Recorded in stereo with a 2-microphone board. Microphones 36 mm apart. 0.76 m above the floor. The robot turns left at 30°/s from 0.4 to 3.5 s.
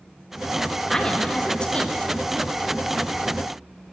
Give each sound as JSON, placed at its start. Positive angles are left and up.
{"t": 0.9, "sound": "a woman speaking", "side_deg": 15, "distance_m": 0.8}